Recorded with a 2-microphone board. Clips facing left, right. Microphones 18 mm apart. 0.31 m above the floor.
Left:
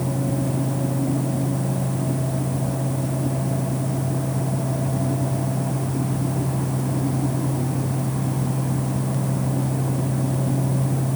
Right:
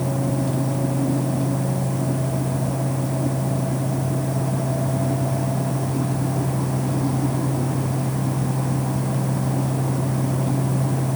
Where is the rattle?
I don't hear a rattle.